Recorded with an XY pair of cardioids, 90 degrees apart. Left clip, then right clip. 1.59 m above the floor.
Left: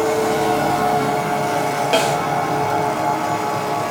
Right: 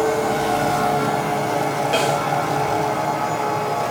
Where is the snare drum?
40° left, 2.5 m.